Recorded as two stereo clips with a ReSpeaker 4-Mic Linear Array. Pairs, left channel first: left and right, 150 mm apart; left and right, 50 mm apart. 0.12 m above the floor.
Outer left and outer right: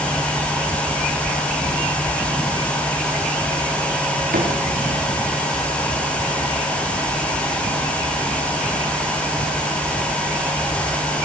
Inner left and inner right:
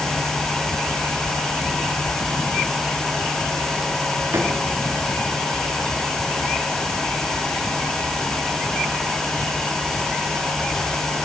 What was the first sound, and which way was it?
A drawer, 85° right.